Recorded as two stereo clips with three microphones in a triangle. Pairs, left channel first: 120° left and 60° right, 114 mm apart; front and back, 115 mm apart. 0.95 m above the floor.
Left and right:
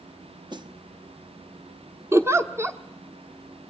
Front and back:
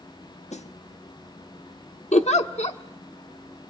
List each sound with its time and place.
0.5 s a snare drum: 10° right, 1.0 m
2.1 s a giggle: 5° left, 1.1 m